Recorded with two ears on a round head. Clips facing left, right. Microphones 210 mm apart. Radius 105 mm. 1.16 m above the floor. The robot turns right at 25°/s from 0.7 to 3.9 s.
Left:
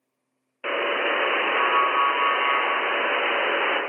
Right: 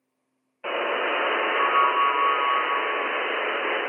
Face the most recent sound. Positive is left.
turn(degrees=105)